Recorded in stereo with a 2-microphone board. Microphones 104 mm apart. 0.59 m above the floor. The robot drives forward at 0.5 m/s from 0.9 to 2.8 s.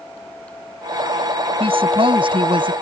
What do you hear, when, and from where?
1.6 s a woman speaking: 55° right (ahead or behind); by 2.7 s 50° right (ahead or behind)